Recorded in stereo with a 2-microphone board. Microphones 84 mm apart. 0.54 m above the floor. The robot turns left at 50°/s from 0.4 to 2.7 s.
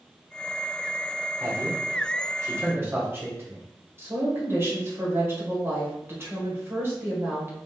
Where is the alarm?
No alarm in this recording.